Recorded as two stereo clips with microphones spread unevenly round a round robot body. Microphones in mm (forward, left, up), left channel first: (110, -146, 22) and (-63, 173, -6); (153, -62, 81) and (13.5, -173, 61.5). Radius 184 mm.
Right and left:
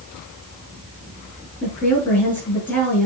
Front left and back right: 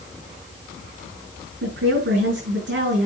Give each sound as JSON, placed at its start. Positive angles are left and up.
{"t": 1.6, "sound": "a woman speaking", "azimuth_deg": -150, "distance_m": 5.0}